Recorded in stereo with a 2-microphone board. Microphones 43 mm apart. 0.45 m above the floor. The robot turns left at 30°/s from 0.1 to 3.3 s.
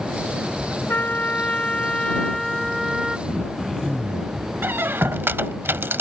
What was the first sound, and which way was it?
A trumpet, 55° left.